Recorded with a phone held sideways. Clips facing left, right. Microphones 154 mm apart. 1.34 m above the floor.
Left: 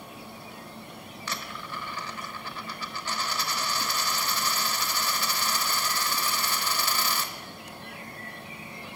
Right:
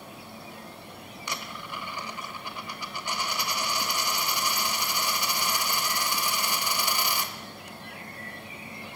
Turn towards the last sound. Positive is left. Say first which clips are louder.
# even
turn(degrees=-15)  # may be behind; listen again after turning